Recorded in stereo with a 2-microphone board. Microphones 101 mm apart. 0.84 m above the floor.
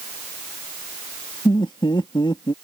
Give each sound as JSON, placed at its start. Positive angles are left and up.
{"t": 1.4, "sound": "laughter", "side_deg": 50}